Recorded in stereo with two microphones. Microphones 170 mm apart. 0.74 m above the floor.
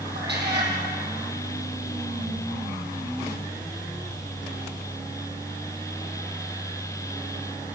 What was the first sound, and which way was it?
A cat meowing, 75° right (ahead or behind).